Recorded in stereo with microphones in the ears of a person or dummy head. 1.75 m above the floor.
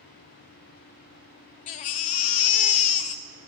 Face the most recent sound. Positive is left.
turn(degrees=30)  # may be behind; listen again after turning